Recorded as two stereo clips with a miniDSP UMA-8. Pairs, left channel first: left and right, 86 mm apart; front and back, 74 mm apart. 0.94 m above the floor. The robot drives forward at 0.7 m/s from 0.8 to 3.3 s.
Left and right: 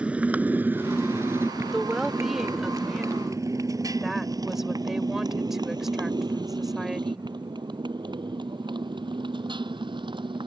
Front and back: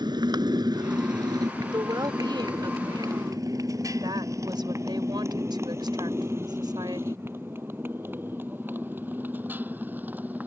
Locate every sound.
0.0 s a motorcycle: 170° right; by 10.5 s 115° right
1.7 s a woman speaking: 175° right; by 7.3 s straight behind